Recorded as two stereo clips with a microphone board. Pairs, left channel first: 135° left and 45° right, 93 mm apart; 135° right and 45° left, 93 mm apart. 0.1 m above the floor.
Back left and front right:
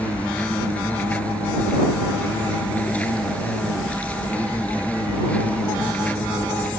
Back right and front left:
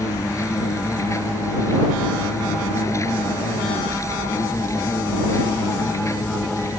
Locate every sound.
0.0 s an insect: 160° right